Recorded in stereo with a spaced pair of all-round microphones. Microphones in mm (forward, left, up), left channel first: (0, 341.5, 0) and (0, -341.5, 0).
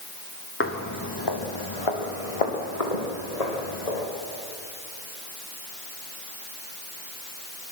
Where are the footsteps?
20° left (ahead or behind), 2 m; by 4.1 s 70° left (ahead or behind), 4.5 m.